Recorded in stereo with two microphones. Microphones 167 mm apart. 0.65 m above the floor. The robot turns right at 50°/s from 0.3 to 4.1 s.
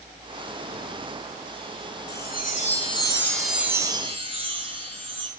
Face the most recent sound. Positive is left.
turn(degrees=-150)